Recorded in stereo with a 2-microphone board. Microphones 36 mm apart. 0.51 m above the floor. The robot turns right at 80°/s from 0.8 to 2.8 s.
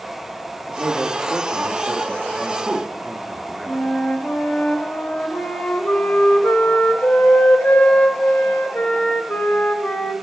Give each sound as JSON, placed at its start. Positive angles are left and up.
{"t": 0.7, "sound": "a man speaking", "azimuth_deg": -155, "distance_m": 1.0}
{"t": 3.7, "sound": "a flute", "side_deg": 70, "distance_m": 1.2}